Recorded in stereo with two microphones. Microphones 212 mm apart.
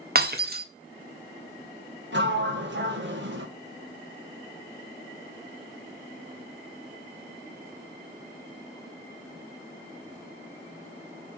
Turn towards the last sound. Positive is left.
turn(degrees=-60)  # may be behind; listen again after turning